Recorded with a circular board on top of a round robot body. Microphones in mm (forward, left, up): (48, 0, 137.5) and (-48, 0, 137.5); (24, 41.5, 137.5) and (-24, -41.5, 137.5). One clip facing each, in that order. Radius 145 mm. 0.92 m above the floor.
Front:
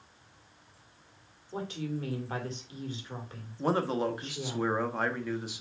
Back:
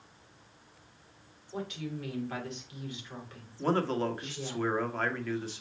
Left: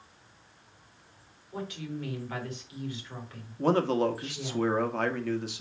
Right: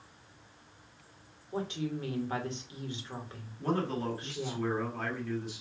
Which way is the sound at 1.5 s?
55° right.